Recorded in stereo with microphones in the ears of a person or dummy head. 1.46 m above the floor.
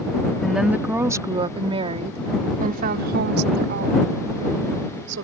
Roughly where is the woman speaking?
Centre.